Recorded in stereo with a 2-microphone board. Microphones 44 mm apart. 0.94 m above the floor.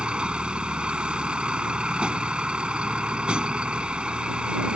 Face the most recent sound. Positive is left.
turn(degrees=-20)  # may be behind; listen again after turning